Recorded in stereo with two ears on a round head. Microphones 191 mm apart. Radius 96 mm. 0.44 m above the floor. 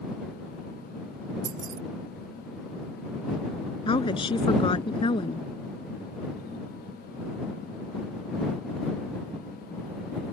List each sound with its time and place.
1.4 s keys jangling: 40° right (ahead or behind)
3.9 s a woman speaking: 25° left (ahead or behind)